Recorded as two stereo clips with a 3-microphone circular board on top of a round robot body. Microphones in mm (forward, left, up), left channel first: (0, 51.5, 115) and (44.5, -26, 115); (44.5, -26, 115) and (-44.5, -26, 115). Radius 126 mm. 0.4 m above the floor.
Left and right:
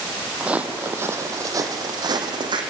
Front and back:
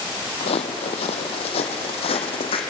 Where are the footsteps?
20° left, 1.2 m; by 2.6 s 20° right, 1.8 m.